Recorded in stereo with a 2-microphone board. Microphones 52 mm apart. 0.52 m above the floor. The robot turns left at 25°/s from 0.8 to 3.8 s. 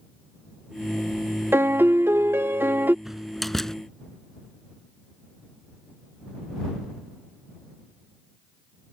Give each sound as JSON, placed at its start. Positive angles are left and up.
{"t": 1.5, "sound": "a piano", "azimuth_deg": -80}
{"t": 3.0, "sound": "a door slam", "side_deg": -5}